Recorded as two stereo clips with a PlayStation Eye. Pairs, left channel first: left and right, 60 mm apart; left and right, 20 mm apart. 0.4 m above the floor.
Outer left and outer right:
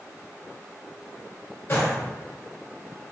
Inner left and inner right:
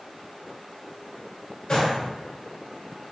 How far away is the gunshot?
About 1.6 m.